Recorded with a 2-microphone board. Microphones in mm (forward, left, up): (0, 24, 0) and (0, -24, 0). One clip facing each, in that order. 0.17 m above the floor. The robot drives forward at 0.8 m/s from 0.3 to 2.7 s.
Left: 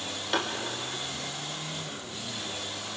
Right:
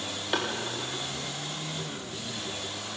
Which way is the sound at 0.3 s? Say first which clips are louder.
Even; 5° right (ahead or behind).